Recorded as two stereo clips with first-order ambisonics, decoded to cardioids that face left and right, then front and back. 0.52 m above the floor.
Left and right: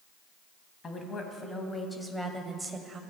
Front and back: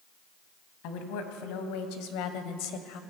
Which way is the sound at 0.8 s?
20° left.